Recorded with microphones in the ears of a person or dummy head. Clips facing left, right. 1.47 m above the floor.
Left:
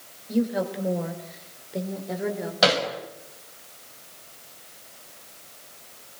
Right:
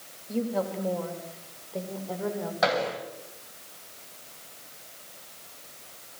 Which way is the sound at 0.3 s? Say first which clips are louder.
Left 4 dB; 15° left (ahead or behind).